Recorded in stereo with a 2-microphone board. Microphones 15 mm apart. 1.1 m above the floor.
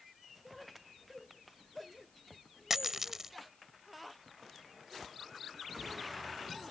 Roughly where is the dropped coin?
Right.